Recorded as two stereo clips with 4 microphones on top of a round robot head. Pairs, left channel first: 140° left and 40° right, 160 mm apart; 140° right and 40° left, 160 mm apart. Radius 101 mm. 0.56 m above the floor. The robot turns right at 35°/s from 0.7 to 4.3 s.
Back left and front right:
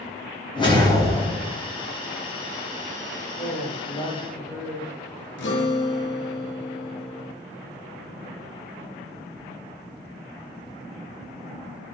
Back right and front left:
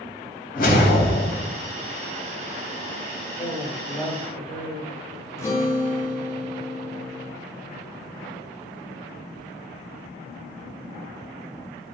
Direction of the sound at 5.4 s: 150° left.